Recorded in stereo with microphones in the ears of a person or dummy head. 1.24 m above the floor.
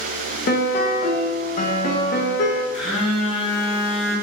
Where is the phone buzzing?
45° left (ahead or behind), 1.8 m.